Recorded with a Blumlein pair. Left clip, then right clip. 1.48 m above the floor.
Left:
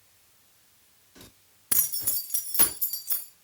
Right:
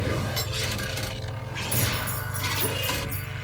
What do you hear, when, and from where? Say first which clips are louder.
1.7 s keys jangling: right 4 dB; 20° left, 1.6 m; by 3.3 s 50° left, 2.5 m